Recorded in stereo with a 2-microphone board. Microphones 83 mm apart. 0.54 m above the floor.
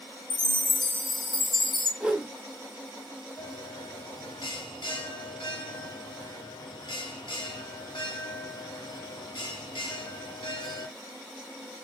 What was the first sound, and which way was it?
A chime, 70° left (ahead or behind).